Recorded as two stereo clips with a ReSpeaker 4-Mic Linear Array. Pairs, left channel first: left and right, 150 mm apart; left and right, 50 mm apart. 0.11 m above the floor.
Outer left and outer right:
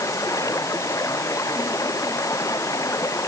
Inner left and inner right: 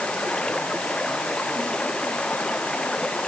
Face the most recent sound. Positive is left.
turn(degrees=20)  # may be behind; listen again after turning